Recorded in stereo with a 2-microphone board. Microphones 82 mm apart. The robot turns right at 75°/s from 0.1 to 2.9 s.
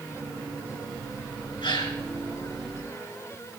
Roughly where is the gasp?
Left.